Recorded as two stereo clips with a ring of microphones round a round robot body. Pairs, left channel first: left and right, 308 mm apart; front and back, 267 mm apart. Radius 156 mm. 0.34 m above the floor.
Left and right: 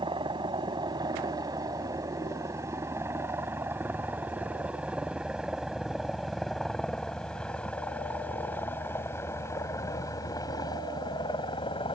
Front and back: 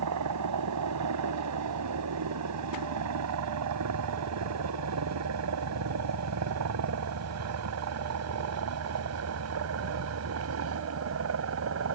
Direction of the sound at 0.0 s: 165° right.